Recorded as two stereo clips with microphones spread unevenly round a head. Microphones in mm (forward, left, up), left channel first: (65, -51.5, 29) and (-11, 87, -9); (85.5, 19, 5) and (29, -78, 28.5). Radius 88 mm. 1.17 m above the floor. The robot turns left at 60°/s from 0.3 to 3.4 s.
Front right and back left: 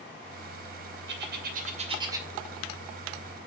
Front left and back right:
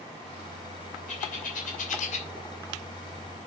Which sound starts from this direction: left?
A bird, at 1.1 s.